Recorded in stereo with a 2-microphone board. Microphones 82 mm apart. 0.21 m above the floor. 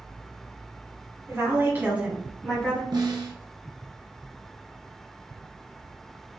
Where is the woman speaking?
35° right (ahead or behind), 1.9 m; by 2.8 s 15° left (ahead or behind), 1.6 m.